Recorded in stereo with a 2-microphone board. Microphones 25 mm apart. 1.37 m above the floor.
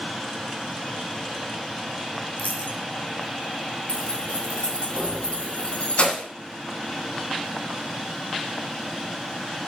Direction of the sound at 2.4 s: 80° left.